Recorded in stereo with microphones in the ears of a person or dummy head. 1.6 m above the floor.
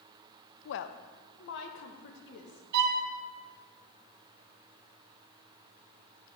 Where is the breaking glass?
I don't hear breaking glass.